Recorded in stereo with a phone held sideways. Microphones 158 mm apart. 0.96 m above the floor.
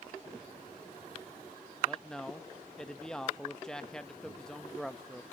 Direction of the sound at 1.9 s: 5° left (ahead or behind).